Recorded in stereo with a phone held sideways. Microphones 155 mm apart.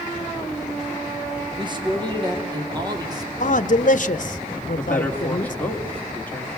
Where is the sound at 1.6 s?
30° right (ahead or behind), 2.5 m; by 3.3 s 25° right (ahead or behind), 3.5 m.